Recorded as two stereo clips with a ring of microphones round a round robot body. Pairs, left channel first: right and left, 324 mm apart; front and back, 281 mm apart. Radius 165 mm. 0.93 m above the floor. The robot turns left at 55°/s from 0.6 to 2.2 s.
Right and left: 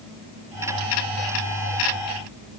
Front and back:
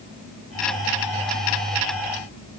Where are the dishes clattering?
No dishes clattering in this recording.